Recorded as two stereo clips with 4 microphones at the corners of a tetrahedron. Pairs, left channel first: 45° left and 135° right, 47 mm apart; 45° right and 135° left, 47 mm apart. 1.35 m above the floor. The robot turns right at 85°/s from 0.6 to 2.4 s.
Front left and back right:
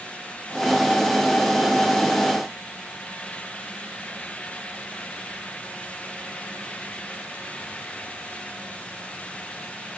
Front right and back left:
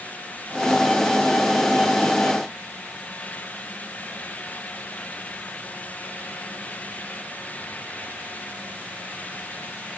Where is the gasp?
I don't hear a gasp.